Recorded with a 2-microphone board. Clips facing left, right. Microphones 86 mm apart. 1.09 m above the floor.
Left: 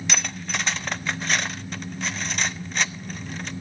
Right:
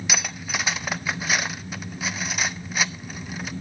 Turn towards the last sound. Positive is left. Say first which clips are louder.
# even
turn(degrees=-10)  # may be behind; listen again after turning